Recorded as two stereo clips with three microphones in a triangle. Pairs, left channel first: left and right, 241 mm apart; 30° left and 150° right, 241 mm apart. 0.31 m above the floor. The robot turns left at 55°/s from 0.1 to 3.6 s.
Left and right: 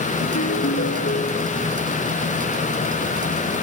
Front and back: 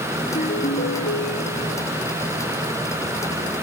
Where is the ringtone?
95° left, 1.4 m; by 1.8 s 5° left, 1.4 m.